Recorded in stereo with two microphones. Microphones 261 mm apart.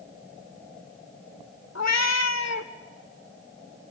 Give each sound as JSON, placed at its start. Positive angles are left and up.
{"t": 1.8, "sound": "a cat meowing", "side_deg": 85, "distance_m": 1.3}